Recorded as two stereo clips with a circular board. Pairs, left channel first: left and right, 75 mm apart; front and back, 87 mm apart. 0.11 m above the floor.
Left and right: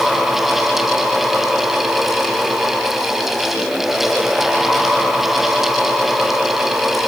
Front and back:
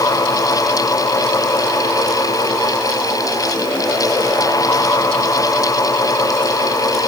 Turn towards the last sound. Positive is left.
No sound to turn to.